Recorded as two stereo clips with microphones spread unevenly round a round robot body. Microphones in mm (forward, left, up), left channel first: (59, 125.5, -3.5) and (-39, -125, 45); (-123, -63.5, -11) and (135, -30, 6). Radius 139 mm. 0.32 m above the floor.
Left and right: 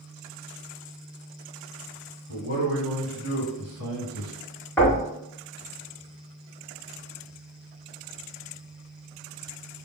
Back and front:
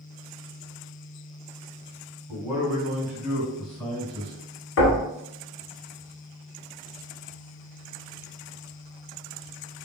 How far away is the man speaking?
About 2 m.